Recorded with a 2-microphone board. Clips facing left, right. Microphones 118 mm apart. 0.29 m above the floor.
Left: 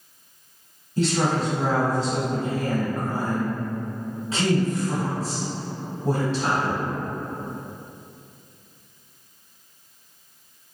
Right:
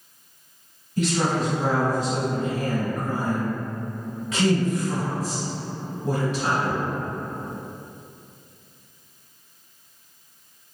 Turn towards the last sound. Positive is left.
turn(degrees=30)  # may be behind; listen again after turning